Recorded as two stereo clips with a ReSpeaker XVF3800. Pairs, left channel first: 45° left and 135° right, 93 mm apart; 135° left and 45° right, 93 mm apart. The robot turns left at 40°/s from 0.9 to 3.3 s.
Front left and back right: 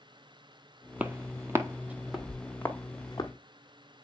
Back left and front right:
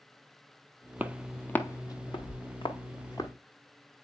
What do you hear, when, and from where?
1.0 s footsteps: 85° right, 0.7 m; by 3.3 s 85° left, 1.7 m